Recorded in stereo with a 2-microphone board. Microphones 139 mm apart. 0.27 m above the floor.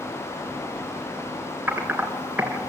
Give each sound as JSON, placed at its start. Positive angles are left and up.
{"t": 1.7, "sound": "typing on a keyboard", "side_deg": -10, "distance_m": 4.0}